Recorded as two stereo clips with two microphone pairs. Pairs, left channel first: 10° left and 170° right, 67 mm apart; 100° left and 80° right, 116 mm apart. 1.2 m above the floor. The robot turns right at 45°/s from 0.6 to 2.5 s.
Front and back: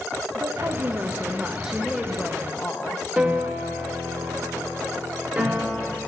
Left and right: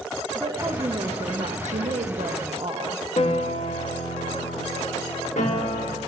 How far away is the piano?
About 1.5 m.